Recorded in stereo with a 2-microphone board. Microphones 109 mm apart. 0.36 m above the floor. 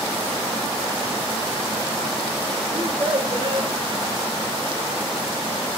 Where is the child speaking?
60° right (ahead or behind), 2.5 m.